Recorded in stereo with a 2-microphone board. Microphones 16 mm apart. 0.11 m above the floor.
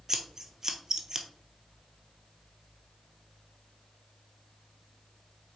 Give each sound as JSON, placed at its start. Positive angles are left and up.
{"t": 0.1, "sound": "scissors", "side_deg": -30, "distance_m": 1.1}